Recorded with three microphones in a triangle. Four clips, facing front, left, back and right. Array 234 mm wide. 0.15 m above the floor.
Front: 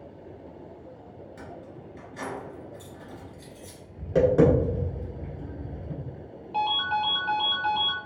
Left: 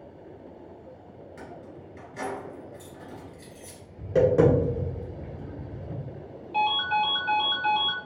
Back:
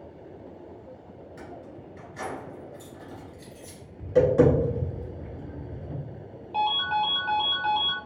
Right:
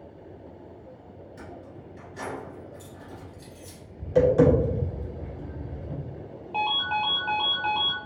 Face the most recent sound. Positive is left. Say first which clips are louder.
# left 3 dB, back 1 dB
turn(degrees=-110)